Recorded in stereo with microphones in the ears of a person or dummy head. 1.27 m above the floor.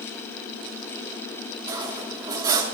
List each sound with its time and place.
1.7 s cutlery clinking: 25° right (ahead or behind), 1.3 m